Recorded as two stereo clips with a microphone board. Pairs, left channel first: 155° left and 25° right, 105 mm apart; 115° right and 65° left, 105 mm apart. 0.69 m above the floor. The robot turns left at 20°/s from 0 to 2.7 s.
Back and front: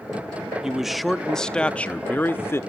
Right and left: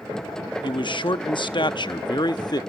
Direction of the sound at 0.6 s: 105° right.